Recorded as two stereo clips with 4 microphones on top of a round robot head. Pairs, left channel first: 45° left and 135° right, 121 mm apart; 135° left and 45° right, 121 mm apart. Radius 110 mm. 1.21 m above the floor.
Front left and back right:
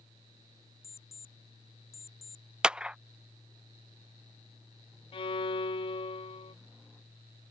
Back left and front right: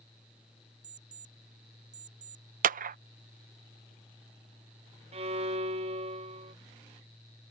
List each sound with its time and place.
0.8 s an alarm clock: 25° right
2.6 s a clap: 55° right
5.1 s a violin: 5° right